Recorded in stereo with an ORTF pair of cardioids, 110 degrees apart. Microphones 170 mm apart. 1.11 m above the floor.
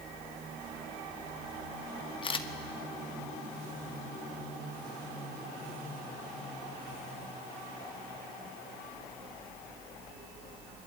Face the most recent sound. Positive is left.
turn(degrees=30)